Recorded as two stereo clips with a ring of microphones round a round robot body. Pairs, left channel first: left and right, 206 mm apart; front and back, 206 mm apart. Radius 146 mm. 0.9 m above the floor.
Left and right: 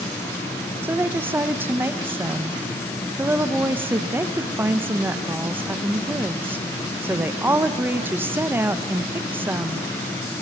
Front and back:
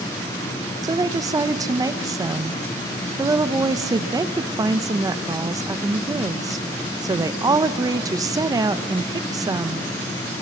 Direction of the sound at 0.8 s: 150° right.